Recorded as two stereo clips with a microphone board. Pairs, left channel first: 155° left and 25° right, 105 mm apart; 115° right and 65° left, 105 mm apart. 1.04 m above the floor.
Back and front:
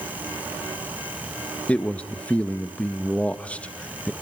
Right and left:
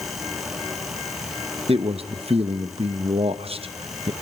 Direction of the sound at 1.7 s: 80° left.